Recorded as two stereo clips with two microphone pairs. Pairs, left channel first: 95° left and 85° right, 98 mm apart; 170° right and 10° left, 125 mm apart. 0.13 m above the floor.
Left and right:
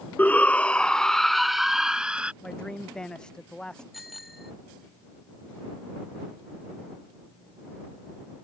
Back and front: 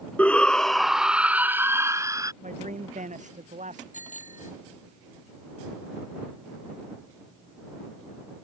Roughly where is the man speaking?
Ahead.